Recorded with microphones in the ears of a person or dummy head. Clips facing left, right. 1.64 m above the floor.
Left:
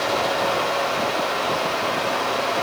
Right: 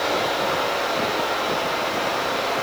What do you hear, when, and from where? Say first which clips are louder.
0.0 s a fan: left 1 dB; 75° left (ahead or behind), 5.5 m